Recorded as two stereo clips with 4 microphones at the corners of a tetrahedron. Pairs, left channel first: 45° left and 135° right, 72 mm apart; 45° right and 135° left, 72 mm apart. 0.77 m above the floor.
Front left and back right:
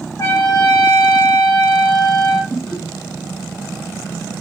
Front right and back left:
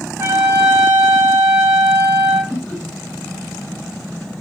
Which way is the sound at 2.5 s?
60° right.